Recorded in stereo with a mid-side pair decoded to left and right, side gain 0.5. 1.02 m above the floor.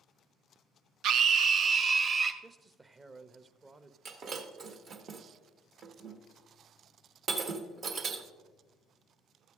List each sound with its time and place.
1.0 s a scream: 70° right, 0.6 m; by 2.3 s 40° right, 1.6 m
2.4 s a man speaking: 30° right, 0.8 m
4.0 s breaking glass: 55° right, 1.4 m